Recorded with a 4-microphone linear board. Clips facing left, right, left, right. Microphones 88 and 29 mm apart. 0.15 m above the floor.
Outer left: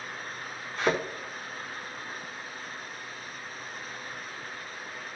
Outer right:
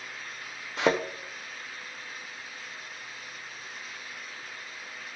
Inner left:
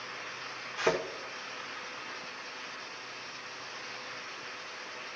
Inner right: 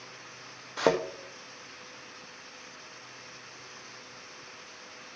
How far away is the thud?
About 1.8 m.